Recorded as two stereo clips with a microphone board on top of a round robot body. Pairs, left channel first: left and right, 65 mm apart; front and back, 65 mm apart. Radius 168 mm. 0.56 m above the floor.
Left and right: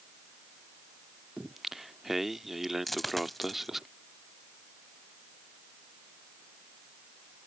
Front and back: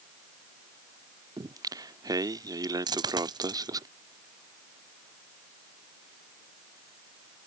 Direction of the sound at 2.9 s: 175° left.